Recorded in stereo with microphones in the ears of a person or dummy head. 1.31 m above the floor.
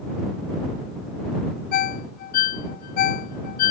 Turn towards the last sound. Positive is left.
turn(degrees=45)  # may be behind; listen again after turning